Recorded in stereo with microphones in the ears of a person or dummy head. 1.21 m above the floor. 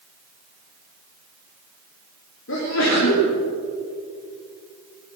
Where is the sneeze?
75° left (ahead or behind), 2.5 m.